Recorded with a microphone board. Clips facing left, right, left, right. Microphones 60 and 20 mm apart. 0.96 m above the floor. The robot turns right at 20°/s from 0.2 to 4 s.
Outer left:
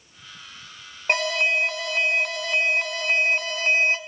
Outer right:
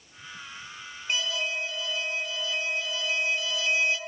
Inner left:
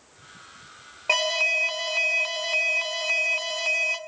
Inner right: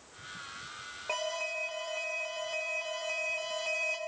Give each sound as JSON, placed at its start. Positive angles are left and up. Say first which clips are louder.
{"t": 1.1, "sound": "an alarm", "louder": "outer left 8 dB, inner left 12 dB", "azimuth_deg": 75, "distance_m": 2.5}